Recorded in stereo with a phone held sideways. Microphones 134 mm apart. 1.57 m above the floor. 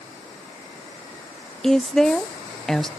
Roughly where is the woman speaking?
Centre.